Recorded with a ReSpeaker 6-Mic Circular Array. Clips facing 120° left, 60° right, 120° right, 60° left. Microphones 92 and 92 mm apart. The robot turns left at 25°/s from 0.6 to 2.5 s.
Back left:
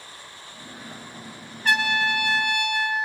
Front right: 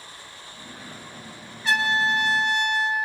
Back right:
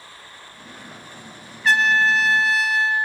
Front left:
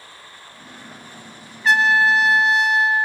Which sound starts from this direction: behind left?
A trumpet, at 1.6 s.